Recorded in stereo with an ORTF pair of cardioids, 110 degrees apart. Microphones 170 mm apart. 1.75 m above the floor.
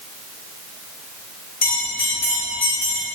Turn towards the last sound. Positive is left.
turn(degrees=50)